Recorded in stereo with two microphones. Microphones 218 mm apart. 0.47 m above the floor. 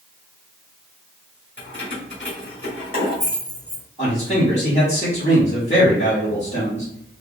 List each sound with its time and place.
1.6 s keys jangling: 55° left (ahead or behind), 1.7 m
4.0 s a man speaking: 30° left (ahead or behind), 1.5 m